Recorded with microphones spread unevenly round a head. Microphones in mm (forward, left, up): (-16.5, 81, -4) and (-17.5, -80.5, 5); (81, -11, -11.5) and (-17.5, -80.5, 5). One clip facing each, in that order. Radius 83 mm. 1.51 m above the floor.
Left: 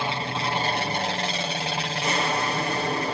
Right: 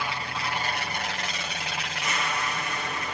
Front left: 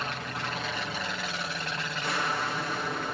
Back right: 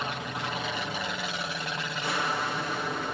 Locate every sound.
0.0 s an aircraft: 135° left; by 3.1 s 130° left